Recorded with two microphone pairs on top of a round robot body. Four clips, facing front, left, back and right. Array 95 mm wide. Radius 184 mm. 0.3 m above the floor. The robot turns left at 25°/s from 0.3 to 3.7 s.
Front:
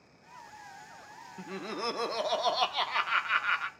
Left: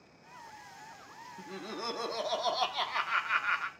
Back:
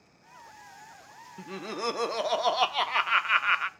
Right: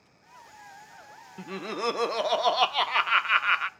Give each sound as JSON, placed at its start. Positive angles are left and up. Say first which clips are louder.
{"t": 1.4, "sound": "laughter", "louder": "right 9 dB, back 2 dB", "azimuth_deg": -85, "distance_m": 0.9}